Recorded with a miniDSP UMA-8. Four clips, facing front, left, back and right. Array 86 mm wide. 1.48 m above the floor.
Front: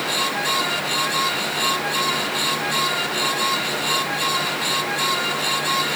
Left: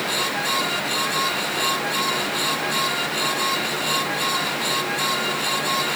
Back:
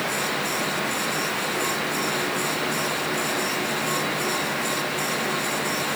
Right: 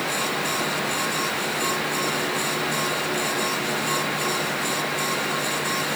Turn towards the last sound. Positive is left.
No sound to turn to.